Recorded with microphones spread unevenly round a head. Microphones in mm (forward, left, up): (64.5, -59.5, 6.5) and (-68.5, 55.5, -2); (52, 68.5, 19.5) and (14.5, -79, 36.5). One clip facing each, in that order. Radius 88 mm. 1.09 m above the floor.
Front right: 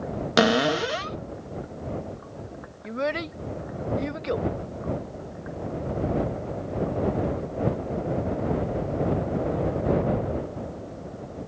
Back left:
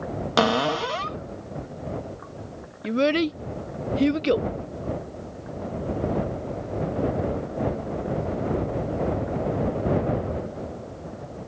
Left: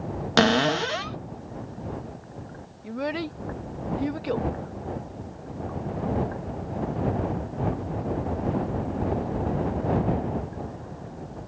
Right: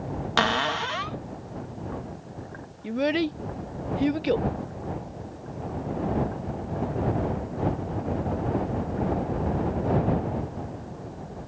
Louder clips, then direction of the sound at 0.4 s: Front right 2 dB, left 6 dB; 30° left.